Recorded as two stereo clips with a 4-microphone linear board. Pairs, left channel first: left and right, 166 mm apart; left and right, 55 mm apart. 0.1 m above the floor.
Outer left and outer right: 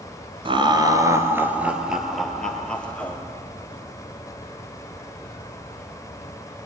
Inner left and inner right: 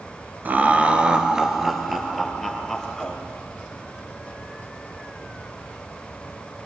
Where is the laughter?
30° right (ahead or behind), 1.4 m; by 3.2 s 10° left (ahead or behind), 2.5 m.